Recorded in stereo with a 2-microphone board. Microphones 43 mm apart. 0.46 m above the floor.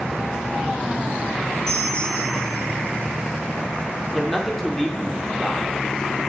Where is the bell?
10° left (ahead or behind), 3.5 m.